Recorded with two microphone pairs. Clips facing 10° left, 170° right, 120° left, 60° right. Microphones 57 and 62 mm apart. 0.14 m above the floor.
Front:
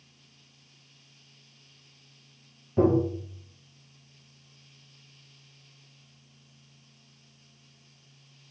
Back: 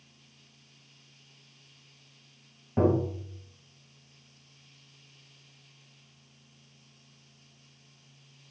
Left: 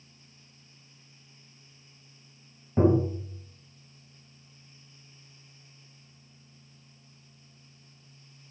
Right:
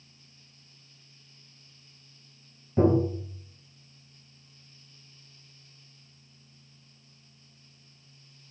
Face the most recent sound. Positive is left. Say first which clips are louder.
# front 3 dB, even
turn(degrees=155)